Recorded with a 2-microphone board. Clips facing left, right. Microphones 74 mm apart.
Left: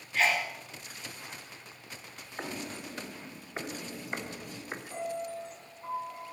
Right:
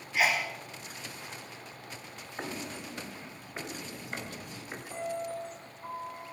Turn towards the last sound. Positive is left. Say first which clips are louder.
# right 1 dB
turn(degrees=-5)  # may be behind; listen again after turning